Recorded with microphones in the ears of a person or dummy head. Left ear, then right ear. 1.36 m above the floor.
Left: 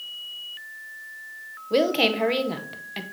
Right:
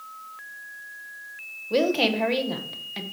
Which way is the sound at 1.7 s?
5° left (ahead or behind).